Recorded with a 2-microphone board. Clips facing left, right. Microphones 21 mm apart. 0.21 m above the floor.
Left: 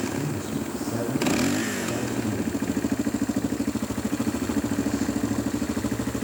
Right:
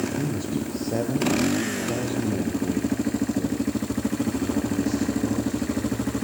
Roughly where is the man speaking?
Right.